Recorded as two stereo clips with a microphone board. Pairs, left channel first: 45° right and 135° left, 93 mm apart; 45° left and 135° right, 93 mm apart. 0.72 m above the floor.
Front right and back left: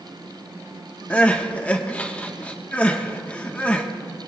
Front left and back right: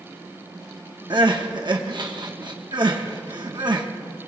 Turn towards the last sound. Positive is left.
turn(degrees=-115)